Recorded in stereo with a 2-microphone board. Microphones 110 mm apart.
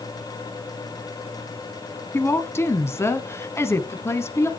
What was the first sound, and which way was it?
A woman speaking, 25° left (ahead or behind).